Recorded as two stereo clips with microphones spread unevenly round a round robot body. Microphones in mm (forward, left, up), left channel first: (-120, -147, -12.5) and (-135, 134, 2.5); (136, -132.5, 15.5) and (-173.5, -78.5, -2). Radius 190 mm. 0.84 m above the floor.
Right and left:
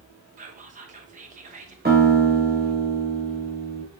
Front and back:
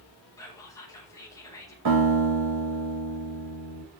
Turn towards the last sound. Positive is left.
turn(degrees=150)